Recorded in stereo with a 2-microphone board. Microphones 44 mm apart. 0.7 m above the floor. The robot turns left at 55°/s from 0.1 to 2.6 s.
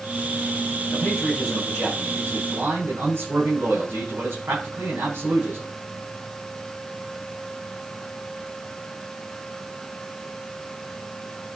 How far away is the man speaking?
About 8 m.